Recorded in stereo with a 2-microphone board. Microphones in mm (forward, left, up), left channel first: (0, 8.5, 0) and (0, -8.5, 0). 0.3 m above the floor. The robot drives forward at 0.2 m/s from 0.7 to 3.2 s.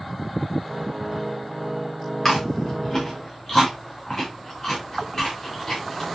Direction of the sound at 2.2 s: 5° left (ahead or behind).